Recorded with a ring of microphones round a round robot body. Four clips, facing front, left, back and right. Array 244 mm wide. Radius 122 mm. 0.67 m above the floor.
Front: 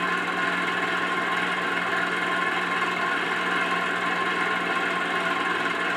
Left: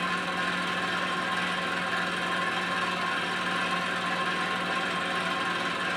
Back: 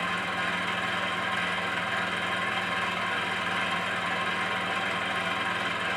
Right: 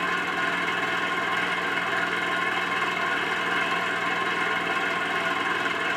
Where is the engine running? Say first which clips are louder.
Right 3 dB, front 5 dB; 10° right, 1.2 m.